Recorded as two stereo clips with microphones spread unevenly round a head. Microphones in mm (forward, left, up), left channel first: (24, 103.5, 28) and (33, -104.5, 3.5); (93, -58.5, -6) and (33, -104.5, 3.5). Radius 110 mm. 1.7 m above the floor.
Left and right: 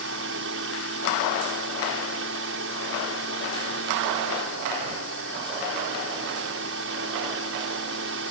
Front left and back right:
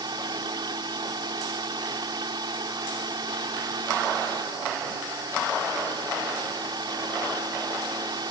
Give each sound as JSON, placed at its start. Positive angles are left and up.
{"t": 0.0, "sound": "a fan", "azimuth_deg": -125}